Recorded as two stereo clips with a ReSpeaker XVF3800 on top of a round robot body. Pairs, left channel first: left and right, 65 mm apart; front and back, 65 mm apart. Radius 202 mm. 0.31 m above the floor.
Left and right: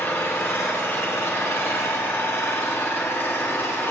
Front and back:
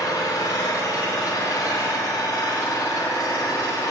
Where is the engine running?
35° left, 5 m.